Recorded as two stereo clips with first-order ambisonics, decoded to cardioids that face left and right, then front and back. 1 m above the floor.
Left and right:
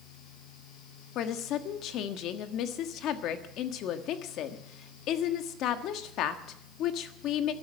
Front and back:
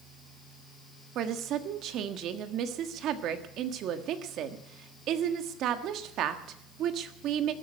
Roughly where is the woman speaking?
Behind left.